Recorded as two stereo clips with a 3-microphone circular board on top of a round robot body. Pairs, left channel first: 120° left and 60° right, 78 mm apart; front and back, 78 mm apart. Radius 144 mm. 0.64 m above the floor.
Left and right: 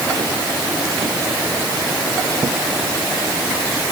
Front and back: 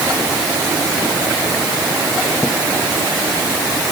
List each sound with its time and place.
Only background noise.